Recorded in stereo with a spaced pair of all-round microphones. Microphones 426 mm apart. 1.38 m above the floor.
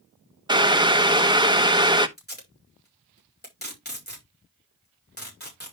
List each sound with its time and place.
0.5 s boiling: 10° right (ahead or behind), 1.0 m
2.2 s tape being pulled: 25° left (ahead or behind), 5.5 m